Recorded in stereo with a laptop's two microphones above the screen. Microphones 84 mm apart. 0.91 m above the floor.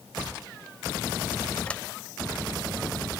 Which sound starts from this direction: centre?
A sliding door, at 1.7 s.